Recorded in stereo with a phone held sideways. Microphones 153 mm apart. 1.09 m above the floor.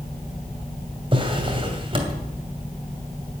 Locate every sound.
1.1 s a drawer: 35° right (ahead or behind), 2.5 m